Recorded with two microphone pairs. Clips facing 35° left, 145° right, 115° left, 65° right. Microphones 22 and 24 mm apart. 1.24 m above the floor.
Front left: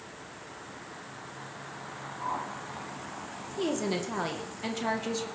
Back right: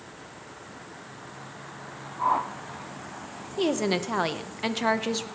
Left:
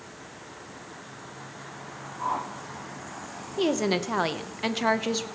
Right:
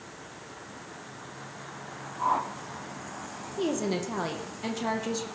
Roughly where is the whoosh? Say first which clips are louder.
Back right 9 dB, right 3 dB; behind right.